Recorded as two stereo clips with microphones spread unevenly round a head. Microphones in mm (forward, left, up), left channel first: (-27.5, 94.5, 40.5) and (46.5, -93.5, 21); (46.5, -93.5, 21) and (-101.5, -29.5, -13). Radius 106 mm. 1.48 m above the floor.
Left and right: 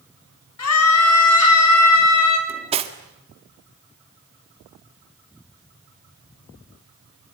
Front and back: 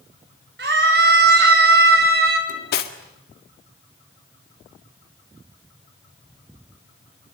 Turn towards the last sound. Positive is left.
turn(degrees=-5)